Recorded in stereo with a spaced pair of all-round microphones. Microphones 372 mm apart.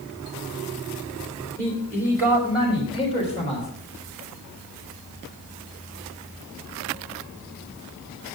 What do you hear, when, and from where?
1.6 s a man speaking: 5° left (ahead or behind), 4 m; by 3.7 s 20° left (ahead or behind), 4.5 m